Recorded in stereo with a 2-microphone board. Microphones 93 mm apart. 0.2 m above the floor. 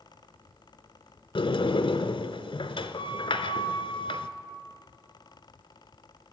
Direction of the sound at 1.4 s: 70° left (ahead or behind).